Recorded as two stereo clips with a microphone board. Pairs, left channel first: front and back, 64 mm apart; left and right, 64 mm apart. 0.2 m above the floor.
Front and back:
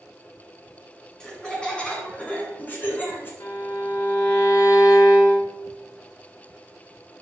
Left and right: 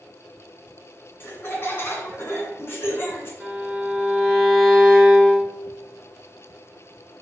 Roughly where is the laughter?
Left.